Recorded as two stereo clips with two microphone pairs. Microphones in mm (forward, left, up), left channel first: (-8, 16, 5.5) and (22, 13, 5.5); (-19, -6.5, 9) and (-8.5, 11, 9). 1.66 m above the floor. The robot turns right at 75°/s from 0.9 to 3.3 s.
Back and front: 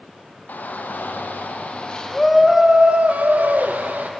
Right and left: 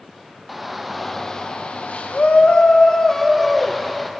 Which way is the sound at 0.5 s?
155° left.